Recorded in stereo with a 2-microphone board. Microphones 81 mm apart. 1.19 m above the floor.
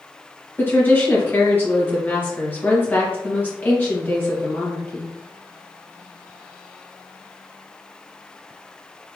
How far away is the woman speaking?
About 1.5 m.